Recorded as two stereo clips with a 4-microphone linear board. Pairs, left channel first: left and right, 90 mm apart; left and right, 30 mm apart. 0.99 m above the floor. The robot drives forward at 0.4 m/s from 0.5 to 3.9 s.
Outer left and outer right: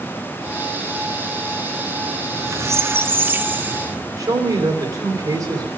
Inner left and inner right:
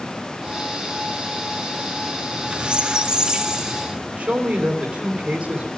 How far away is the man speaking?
About 2.5 m.